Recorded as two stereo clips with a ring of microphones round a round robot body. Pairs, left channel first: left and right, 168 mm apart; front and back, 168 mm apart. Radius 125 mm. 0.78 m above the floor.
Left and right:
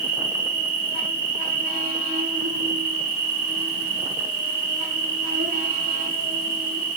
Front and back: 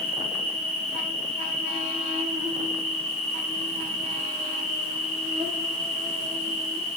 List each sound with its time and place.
0.0 s an insect: 125° right, 1.4 m